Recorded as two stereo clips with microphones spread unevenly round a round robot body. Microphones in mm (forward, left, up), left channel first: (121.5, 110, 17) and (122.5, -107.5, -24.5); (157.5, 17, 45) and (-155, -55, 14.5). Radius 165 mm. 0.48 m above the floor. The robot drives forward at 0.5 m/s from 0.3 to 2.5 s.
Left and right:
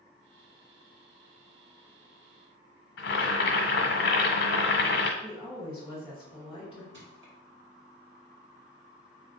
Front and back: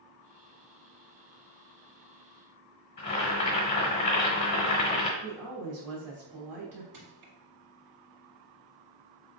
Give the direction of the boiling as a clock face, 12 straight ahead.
9 o'clock.